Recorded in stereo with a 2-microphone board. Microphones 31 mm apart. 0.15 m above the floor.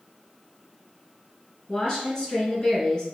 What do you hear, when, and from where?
1.7 s a woman speaking: 25° left (ahead or behind), 1.6 m